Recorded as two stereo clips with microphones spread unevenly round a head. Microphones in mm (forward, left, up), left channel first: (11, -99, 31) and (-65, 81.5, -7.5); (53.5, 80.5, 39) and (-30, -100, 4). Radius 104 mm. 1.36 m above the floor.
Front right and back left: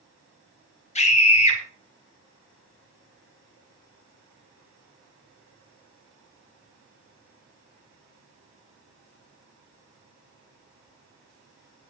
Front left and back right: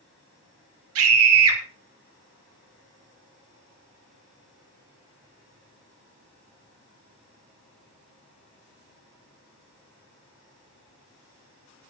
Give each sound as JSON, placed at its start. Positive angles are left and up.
{"t": 0.9, "sound": "a scream", "azimuth_deg": -125, "distance_m": 5.0}